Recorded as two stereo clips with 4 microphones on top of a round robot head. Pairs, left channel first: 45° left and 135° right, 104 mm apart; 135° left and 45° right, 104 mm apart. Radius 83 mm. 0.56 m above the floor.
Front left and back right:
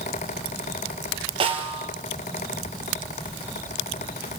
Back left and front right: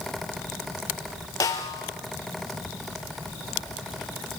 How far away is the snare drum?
About 4 m.